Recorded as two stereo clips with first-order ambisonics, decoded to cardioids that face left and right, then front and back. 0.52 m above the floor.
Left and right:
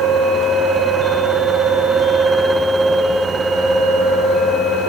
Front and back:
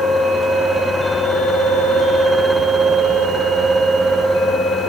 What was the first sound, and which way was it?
Only background noise.